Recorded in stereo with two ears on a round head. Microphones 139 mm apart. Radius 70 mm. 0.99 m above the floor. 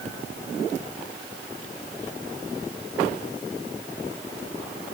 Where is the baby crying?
I don't hear a baby crying.